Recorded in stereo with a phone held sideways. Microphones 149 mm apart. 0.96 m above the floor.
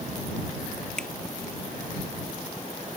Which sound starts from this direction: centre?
A finger snap, at 1.0 s.